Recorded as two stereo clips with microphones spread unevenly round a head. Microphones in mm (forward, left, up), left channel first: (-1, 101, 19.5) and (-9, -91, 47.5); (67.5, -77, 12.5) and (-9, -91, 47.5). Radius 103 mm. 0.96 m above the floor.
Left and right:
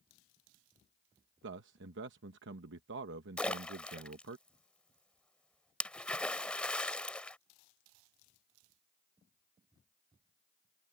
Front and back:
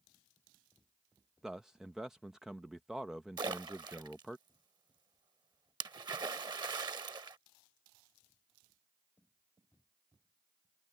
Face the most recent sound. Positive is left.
turn(degrees=175)